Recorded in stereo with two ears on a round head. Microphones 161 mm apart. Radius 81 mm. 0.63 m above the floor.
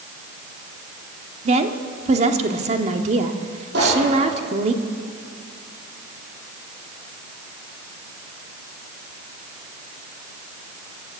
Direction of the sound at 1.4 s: 40° right (ahead or behind).